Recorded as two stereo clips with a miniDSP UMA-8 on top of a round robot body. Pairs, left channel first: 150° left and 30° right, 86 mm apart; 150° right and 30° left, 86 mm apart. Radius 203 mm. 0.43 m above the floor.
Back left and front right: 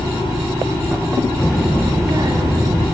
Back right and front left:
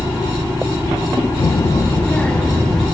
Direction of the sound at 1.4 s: 130° right.